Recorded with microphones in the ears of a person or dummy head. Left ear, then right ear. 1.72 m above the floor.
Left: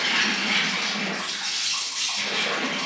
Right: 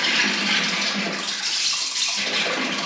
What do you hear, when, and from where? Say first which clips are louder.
0.0 s an insect: right 2 dB; 45° right (ahead or behind), 1.3 m